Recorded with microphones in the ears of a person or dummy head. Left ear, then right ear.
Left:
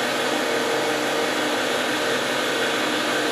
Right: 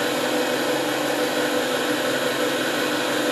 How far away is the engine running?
About 1.3 m.